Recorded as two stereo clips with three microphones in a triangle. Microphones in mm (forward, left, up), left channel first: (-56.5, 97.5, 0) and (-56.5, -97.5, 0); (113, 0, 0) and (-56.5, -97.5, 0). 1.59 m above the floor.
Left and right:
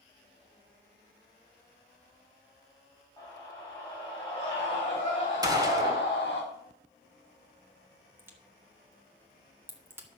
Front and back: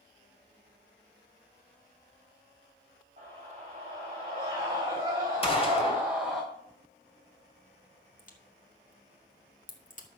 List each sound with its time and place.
3.2 s a scream: 160° left, 4 m; by 6.4 s 120° left, 1.9 m
5.4 s a gunshot: 25° right, 2.5 m
8.2 s a crack: 15° right, 2.0 m